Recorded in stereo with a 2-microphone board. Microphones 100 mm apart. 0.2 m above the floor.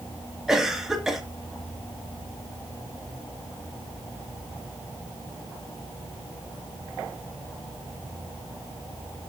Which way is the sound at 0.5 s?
5° right (ahead or behind).